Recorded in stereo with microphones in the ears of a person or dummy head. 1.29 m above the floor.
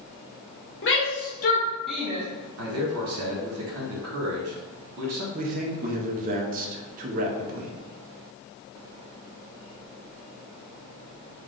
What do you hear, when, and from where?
0.8 s a shout: 60° left (ahead or behind), 1.1 m; by 2.2 s 25° right (ahead or behind), 0.7 m
2.6 s a man speaking: 85° right, 1.1 m
5.3 s a man speaking: 40° right (ahead or behind), 0.6 m